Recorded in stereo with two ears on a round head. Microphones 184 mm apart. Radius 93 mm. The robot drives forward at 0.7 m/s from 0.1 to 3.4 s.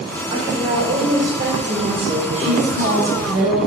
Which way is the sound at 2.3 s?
70° right (ahead or behind).